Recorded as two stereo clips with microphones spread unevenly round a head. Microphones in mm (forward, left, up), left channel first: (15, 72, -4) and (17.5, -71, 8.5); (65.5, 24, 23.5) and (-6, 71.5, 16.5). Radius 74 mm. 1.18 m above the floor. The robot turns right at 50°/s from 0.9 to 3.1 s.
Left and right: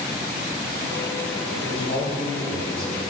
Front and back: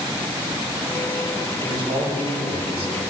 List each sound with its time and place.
1.6 s a man speaking: 115° left, 3.5 m; by 3.0 s 175° right, 3.5 m